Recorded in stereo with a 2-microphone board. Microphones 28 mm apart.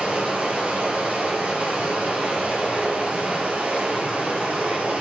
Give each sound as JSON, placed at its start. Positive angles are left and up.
{"t": 0.0, "sound": "running water", "side_deg": -55, "distance_m": 4.5}